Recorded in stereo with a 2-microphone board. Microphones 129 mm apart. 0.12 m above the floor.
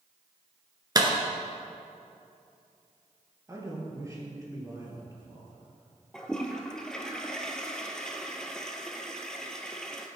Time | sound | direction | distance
0.9 | a clap | 30° right (ahead or behind) | 1.2 m
3.5 | a man speaking | 25° right (ahead or behind) | 2.5 m
6.1 | a toilet flushing | 5° left (ahead or behind) | 0.8 m